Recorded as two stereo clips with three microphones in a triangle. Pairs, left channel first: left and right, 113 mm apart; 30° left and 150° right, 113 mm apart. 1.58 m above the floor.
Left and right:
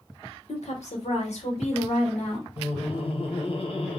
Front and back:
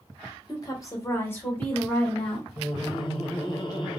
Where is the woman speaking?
85° left, 0.9 m; by 2.5 s 110° left, 1.8 m.